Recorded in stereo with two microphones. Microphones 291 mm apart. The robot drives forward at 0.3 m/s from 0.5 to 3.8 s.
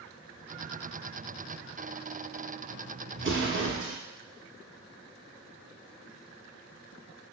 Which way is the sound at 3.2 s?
45° right (ahead or behind).